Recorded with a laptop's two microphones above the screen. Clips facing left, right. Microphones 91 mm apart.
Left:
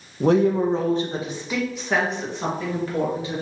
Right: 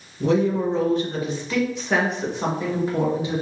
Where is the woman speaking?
55° left (ahead or behind), 0.8 m; by 3.4 s 20° right (ahead or behind), 1.5 m.